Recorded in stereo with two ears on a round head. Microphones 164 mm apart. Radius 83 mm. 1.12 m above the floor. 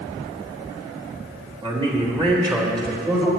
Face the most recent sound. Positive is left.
turn(degrees=-20)  # may be behind; listen again after turning